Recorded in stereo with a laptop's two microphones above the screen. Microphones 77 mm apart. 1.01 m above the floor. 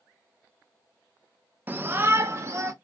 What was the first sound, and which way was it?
A shout, 25° right (ahead or behind).